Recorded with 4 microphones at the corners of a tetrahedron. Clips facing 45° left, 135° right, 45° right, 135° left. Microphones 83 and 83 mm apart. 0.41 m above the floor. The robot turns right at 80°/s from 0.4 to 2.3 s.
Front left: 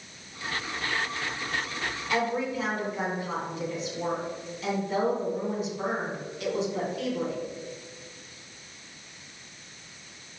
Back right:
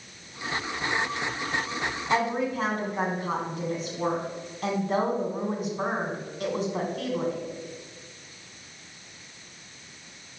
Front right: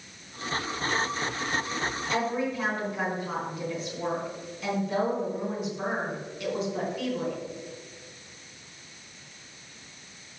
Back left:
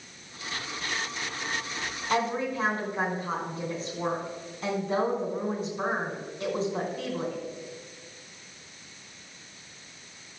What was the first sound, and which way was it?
A woman speaking, 170° left.